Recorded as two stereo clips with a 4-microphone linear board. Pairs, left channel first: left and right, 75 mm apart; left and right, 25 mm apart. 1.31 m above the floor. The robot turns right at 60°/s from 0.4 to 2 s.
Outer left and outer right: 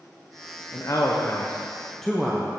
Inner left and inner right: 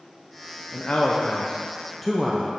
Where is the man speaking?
100° left, 0.7 m; by 2.5 s 175° left, 0.7 m.